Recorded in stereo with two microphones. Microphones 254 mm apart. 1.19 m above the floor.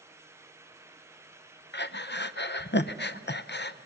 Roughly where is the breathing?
Left.